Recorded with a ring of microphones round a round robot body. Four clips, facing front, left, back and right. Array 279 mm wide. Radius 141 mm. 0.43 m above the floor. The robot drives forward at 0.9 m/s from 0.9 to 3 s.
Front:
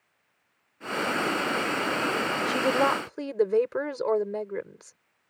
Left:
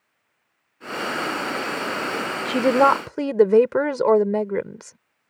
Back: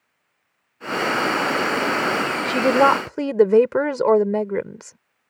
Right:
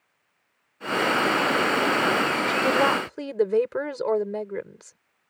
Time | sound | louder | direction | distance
2.5 | a woman speaking | left 8 dB, back 9 dB | 120° left | ?